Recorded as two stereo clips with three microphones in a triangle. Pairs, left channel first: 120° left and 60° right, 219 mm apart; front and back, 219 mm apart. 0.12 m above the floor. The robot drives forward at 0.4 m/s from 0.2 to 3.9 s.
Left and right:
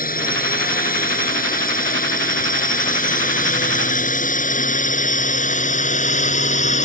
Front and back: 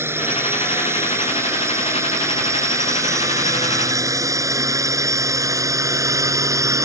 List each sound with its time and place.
0.0 s a drone: 105° left; by 6.9 s 115° left